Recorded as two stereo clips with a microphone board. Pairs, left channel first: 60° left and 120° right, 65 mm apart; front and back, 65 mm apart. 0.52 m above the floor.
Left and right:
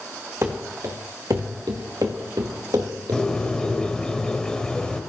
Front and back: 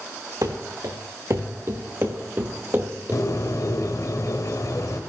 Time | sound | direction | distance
0.4 | running footsteps | 160° right | 2.5 m
3.1 | a bird | 15° right | 2 m